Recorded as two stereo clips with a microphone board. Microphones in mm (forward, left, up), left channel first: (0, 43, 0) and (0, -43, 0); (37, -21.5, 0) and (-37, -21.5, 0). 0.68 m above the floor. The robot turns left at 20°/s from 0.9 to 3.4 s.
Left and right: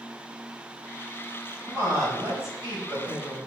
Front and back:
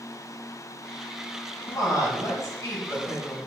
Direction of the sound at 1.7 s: 30° right.